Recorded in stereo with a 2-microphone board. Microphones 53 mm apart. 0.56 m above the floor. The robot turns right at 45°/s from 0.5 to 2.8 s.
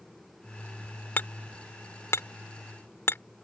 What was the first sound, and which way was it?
Hammering, 40° left (ahead or behind).